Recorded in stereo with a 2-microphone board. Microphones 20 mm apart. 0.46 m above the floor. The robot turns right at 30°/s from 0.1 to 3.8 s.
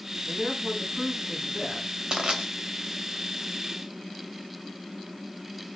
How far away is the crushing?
About 2.5 m.